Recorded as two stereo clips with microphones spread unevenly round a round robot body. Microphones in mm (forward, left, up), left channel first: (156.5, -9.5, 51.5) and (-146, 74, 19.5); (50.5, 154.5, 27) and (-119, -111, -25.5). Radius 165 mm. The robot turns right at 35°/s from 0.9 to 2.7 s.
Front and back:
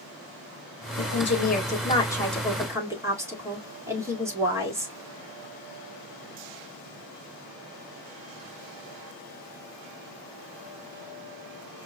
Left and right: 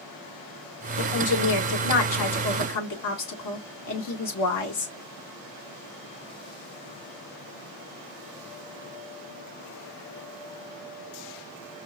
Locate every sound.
1.0 s a woman speaking: 30° left, 1.8 m; by 5.0 s 90° left, 1.8 m